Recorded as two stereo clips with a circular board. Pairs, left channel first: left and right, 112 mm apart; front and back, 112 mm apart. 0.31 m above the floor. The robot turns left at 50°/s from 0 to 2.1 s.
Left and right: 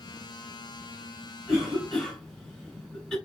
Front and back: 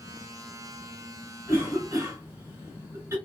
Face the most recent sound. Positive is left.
turn(degrees=170)